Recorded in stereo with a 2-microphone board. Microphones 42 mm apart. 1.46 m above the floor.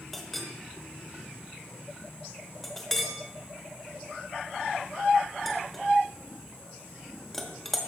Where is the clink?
Centre (ahead or behind), 1.2 m.